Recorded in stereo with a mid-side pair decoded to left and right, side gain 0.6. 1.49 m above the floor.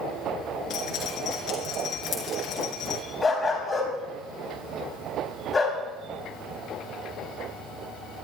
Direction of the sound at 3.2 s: 25° left.